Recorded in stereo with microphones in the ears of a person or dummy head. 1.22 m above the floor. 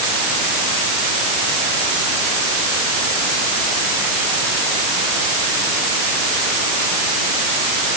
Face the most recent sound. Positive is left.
No sound to turn to.